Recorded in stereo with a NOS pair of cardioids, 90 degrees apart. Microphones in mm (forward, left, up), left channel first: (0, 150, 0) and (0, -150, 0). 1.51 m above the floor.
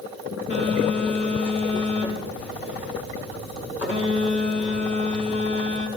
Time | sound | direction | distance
0.5 | a phone buzzing | 40° left | 4.5 m